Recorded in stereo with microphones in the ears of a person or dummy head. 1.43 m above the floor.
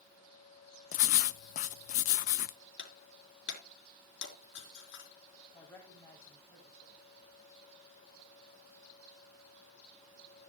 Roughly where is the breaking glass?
Left.